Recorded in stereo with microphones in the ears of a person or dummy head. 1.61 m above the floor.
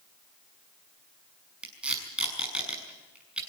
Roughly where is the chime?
I don't hear a chime.